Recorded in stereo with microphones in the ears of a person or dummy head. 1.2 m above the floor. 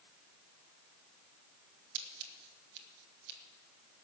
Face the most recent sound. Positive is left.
turn(degrees=-60)  # may be behind; listen again after turning